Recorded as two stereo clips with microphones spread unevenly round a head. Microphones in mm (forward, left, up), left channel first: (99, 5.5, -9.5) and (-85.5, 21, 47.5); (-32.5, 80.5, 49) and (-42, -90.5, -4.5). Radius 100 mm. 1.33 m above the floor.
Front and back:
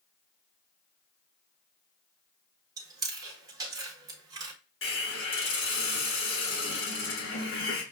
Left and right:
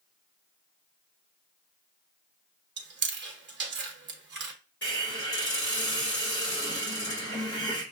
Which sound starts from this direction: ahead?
A hiss, at 4.8 s.